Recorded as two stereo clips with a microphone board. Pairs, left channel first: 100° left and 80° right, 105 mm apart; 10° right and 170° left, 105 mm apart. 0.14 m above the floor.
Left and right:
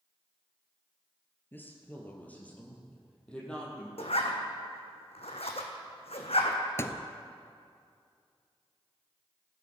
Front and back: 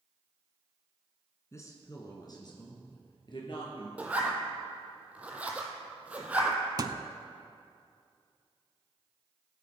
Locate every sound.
1.5 s a woman speaking: 40° left, 1.8 m; by 3.9 s 20° left, 3.5 m
4.0 s a zipper: 95° left, 1.5 m
6.8 s a thud: 145° left, 0.5 m